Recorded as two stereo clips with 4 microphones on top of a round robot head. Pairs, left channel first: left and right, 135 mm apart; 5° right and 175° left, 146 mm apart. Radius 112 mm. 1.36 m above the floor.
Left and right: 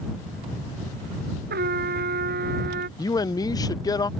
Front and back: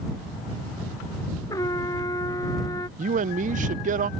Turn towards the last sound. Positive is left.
turn(degrees=150)